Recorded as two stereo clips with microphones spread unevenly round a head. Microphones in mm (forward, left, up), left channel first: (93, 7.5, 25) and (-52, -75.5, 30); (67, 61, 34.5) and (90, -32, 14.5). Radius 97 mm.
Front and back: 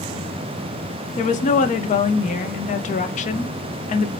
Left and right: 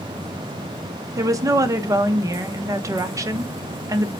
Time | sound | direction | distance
1.2 | a woman speaking | 15° right | 0.7 m